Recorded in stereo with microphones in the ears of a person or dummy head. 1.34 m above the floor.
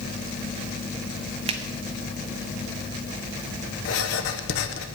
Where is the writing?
60° left (ahead or behind), 0.7 m.